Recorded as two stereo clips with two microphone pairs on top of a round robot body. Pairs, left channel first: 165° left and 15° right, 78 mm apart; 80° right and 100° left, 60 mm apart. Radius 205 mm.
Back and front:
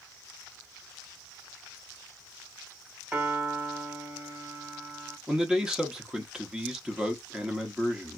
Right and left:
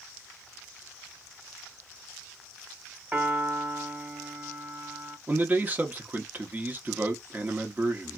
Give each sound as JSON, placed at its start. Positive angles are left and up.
{"t": 3.1, "sound": "a piano", "azimuth_deg": 55, "distance_m": 1.4}
{"t": 5.3, "sound": "a man speaking", "azimuth_deg": 65, "distance_m": 0.9}